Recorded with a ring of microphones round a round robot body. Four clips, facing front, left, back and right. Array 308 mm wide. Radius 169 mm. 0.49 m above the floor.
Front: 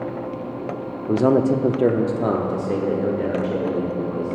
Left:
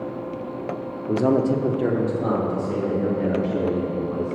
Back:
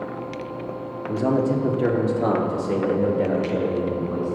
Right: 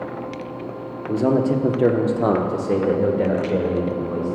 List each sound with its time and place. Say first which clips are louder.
1.1 s a man speaking: right 1 dB, front 4 dB; 10° left, 0.8 m; by 4.4 s 90° right, 2 m